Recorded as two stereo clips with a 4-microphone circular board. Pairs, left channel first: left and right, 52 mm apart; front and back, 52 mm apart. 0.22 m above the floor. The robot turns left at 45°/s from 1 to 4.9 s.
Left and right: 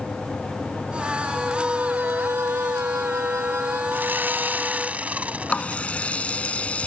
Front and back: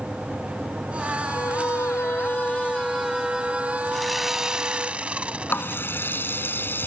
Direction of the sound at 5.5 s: 35° left.